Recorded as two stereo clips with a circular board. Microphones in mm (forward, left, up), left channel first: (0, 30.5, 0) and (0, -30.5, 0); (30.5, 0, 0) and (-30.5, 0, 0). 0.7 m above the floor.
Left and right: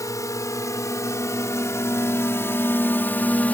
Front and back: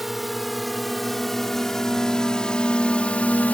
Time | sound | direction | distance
0.0 | a drone | 90° left | ?